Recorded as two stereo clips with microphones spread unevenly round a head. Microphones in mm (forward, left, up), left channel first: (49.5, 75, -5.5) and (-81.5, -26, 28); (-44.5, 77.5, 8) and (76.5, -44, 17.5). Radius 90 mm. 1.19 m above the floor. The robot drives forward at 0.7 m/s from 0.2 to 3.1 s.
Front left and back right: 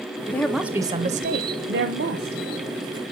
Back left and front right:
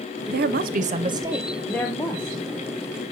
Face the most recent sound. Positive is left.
turn(degrees=-165)